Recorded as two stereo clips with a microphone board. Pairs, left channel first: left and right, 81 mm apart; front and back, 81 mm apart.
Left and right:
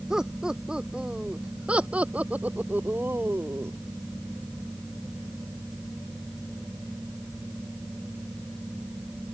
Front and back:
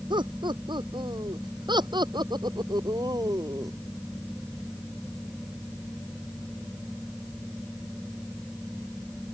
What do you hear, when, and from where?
0.1 s laughter: 170° right; by 3.7 s 145° right